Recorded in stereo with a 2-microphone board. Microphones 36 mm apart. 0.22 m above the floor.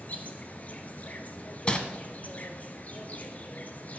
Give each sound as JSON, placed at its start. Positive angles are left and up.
{"t": 0.0, "sound": "an insect", "side_deg": 45, "distance_m": 1.5}
{"t": 1.7, "sound": "crumpling", "side_deg": 30, "distance_m": 1.4}